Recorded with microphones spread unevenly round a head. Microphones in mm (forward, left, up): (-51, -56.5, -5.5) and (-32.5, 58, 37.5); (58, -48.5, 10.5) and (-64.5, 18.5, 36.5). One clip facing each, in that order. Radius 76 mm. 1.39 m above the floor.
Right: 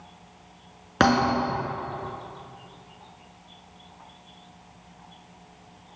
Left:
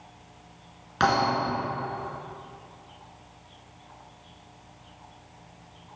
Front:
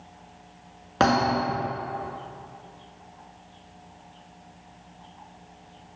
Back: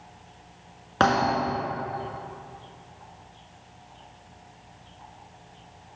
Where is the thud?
125° right, 1.6 m.